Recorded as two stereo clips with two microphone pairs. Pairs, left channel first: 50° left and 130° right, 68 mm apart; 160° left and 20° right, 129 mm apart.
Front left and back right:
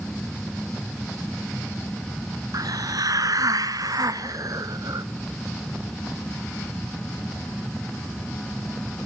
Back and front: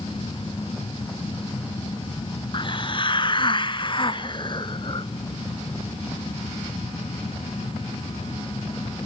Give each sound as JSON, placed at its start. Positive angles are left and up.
{"t": 2.5, "sound": "a hiss", "azimuth_deg": -150, "distance_m": 1.0}